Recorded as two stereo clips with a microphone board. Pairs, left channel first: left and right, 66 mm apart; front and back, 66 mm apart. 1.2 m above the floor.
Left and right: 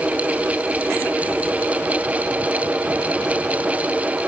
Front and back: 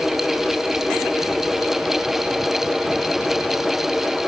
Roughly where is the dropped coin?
I don't hear a dropped coin.